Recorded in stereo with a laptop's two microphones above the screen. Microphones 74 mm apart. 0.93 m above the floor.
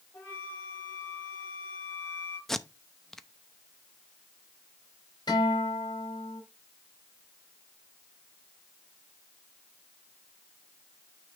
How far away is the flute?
About 3 m.